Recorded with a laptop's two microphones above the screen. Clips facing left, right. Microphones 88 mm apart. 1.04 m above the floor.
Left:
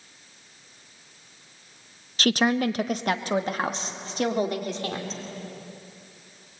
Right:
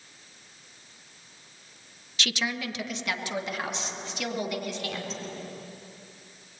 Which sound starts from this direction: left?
A woman speaking, at 2.2 s.